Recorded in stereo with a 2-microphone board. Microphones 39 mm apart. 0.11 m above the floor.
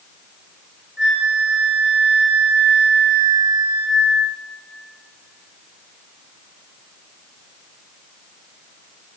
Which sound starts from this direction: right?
A flute, at 1.0 s.